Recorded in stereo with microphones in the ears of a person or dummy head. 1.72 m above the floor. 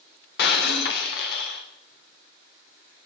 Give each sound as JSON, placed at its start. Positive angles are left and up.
{"t": 0.4, "sound": "breaking glass", "side_deg": 60, "distance_m": 2.5}